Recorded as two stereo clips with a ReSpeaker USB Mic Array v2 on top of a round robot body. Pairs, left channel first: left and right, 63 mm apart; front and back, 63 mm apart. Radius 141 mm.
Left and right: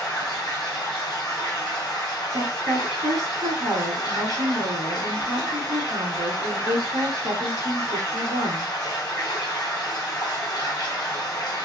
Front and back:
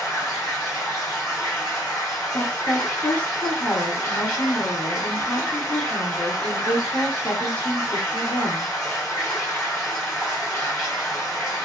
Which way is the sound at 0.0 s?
70° left.